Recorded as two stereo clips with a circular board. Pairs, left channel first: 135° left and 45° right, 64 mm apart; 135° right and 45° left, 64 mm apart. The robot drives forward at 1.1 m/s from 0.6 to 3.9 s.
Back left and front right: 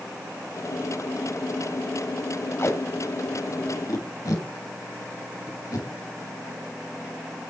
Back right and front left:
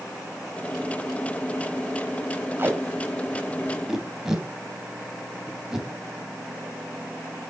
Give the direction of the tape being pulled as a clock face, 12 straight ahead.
9 o'clock.